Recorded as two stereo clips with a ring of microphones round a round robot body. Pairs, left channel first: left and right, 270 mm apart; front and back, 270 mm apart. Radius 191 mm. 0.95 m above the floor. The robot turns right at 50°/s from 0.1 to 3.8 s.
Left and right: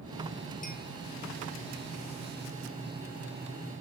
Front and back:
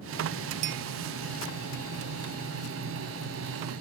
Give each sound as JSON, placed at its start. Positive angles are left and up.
{"t": 0.6, "sound": "a clink", "azimuth_deg": 160, "distance_m": 0.7}